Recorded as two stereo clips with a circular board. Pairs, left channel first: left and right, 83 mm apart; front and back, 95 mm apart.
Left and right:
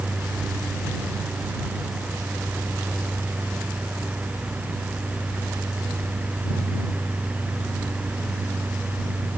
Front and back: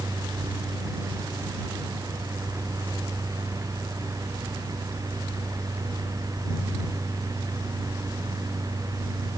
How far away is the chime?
No chime in this recording.